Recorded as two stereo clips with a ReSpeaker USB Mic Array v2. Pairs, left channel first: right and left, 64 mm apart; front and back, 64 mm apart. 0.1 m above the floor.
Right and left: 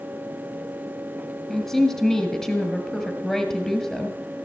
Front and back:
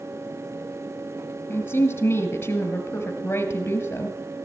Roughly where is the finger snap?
I don't hear a finger snap.